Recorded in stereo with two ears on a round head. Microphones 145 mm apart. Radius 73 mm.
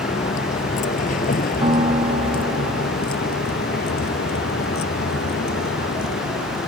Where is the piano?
35° right (ahead or behind).